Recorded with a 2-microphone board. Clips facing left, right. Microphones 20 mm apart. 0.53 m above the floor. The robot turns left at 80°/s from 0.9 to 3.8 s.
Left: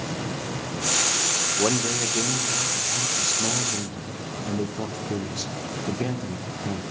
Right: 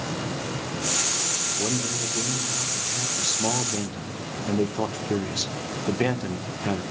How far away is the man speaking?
About 1.2 m.